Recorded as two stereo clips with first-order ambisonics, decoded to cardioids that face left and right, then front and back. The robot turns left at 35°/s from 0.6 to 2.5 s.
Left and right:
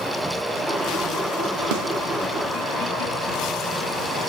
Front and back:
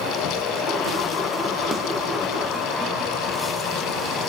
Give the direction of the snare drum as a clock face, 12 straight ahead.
3 o'clock.